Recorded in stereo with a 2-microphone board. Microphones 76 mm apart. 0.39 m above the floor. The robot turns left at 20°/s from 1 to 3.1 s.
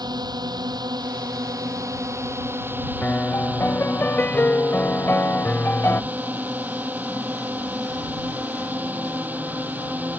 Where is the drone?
115° right; by 10.2 s 160° right.